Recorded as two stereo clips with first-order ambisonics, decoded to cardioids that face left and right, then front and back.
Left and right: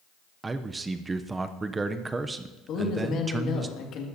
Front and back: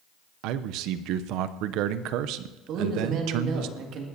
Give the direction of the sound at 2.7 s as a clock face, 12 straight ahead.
7 o'clock.